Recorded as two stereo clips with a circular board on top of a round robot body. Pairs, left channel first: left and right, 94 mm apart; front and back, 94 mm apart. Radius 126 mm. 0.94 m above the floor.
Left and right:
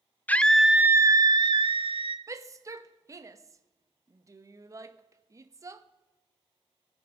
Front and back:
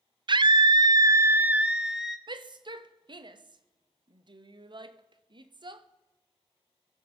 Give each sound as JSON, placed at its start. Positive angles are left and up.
{"t": 0.3, "sound": "a scream", "azimuth_deg": 160, "distance_m": 0.8}
{"t": 2.3, "sound": "a shout", "azimuth_deg": -145, "distance_m": 1.3}